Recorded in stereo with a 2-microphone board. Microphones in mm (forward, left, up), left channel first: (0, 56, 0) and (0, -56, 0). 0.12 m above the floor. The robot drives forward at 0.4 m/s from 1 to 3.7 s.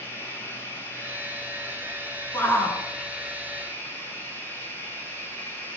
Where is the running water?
30° left (ahead or behind), 5.5 m; by 5.8 s 25° left (ahead or behind), 6.5 m.